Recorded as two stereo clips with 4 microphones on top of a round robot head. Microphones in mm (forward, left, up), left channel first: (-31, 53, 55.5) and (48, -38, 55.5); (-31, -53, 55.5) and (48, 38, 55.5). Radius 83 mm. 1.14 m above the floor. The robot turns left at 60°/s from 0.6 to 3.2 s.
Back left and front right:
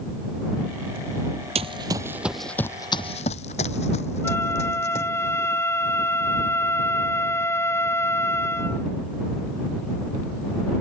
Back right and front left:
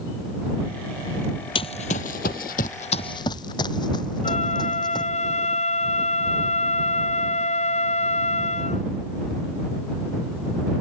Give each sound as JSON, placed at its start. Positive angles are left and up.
{"t": 1.6, "sound": "running footsteps", "azimuth_deg": -90}
{"t": 4.2, "sound": "a flute", "azimuth_deg": -160}